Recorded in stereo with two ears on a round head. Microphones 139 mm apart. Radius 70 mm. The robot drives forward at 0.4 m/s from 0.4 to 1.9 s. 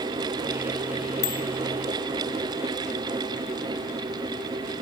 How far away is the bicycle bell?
About 2 m.